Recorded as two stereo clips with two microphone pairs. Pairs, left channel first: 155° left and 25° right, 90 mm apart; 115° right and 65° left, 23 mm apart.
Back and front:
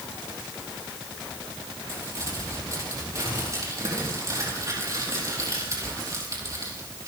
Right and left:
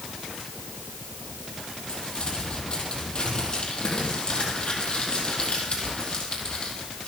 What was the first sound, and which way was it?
Crumpling, 75° right.